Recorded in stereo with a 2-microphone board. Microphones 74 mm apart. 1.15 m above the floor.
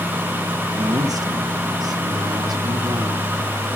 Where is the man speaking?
55° right (ahead or behind), 1.5 m; by 3.3 s 65° right (ahead or behind), 3 m.